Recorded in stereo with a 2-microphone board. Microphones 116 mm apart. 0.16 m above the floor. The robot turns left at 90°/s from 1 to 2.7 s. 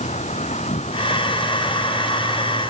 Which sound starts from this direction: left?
An insect, at 0.0 s.